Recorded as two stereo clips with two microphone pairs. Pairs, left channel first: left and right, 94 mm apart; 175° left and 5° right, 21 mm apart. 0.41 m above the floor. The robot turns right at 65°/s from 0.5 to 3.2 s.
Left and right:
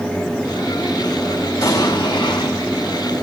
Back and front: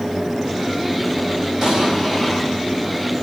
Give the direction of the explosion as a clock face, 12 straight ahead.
11 o'clock.